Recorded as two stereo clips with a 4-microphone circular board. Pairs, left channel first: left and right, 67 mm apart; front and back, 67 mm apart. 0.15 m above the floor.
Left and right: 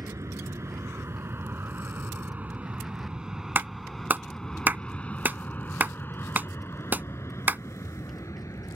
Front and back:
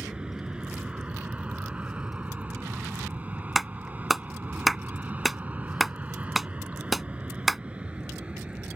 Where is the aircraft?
105° right; by 8.8 s 110° left.